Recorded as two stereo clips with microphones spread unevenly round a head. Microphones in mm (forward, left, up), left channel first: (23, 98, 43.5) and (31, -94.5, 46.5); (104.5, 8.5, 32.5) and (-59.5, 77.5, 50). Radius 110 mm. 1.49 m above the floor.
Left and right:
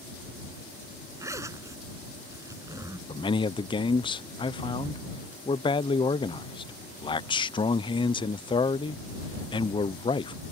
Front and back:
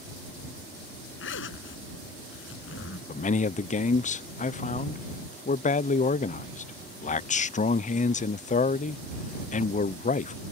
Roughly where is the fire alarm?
I don't hear a fire alarm.